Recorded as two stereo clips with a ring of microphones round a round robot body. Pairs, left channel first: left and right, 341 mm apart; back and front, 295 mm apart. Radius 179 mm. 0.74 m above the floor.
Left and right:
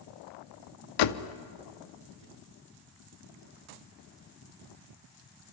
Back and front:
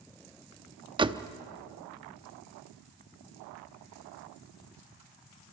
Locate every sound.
1.0 s a door slam: 75° left, 0.8 m